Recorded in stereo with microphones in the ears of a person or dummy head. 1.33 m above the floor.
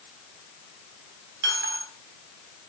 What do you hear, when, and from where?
1.4 s a dropped coin: 55° right (ahead or behind), 3.5 m